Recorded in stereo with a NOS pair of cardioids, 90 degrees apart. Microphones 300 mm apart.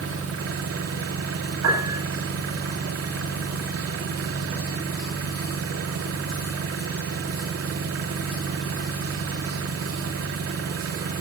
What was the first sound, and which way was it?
An engine running, 50° right.